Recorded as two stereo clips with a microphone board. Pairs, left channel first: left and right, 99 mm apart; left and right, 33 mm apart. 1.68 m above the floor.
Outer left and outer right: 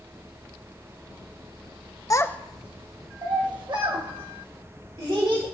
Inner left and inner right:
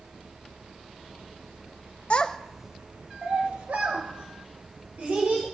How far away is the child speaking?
About 0.6 m.